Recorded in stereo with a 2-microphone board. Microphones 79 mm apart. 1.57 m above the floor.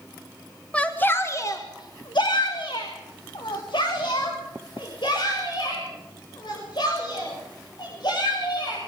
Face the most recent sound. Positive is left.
turn(degrees=65)  # may be behind; listen again after turning